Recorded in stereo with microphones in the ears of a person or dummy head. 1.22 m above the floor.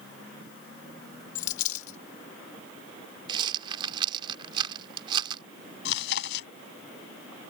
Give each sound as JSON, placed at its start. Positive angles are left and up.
{"t": 1.4, "sound": "a dropped coin", "side_deg": 45}
{"t": 3.3, "sound": "a rattle", "side_deg": -30}
{"t": 5.8, "sound": "chewing", "side_deg": 70}